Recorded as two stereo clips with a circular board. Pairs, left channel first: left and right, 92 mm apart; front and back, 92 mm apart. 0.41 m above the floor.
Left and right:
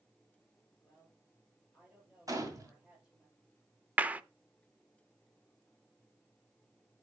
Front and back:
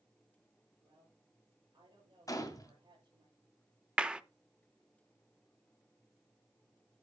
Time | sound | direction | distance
0.8 | a woman speaking | 170° right | 8 m
2.3 | a gunshot | 45° right | 1.8 m
4.0 | a clap | 120° right | 0.5 m